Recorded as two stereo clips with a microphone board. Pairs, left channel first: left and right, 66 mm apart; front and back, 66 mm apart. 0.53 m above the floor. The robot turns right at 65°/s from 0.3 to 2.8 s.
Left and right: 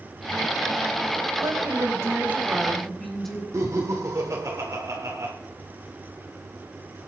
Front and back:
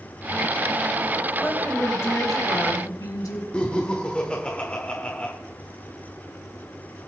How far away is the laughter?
About 1.7 m.